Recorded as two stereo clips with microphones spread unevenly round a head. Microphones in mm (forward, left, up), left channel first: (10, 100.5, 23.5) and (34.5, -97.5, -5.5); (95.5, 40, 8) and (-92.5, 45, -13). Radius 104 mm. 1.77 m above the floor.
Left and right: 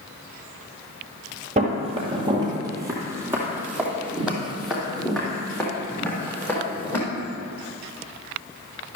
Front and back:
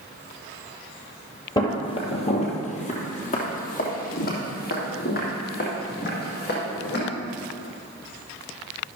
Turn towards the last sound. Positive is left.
turn(degrees=20)